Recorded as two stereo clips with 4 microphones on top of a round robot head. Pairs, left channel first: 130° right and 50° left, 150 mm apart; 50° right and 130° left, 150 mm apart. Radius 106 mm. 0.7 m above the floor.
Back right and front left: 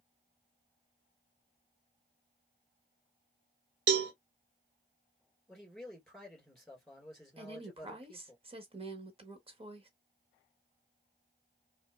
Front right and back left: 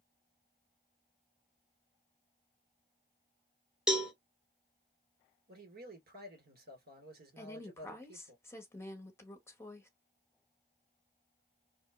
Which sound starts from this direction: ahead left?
A cowbell, at 3.9 s.